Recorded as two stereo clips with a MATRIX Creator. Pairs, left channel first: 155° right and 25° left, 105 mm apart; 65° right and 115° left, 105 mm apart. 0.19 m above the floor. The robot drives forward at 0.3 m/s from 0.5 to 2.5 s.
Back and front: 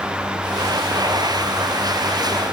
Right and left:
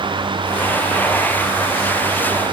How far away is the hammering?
I don't hear hammering.